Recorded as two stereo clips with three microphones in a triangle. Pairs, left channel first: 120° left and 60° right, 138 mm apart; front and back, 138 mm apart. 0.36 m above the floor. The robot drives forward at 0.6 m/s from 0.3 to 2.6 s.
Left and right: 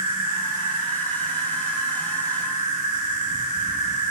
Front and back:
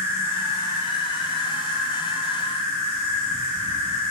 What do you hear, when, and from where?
0.0 s an insect: 115° left, 1.2 m; by 4.1 s 150° left, 2 m